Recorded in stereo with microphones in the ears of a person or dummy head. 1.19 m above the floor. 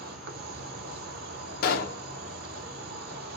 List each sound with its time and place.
0.0 s an insect: 55° right (ahead or behind), 0.9 m
1.6 s a pop: 50° left (ahead or behind), 1.1 m